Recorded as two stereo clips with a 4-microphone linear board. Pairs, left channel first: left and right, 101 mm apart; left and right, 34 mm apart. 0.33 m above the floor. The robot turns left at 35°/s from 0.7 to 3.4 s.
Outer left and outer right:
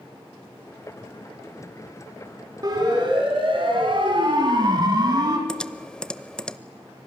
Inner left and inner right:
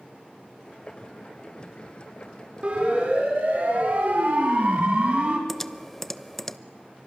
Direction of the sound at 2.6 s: 40° right (ahead or behind).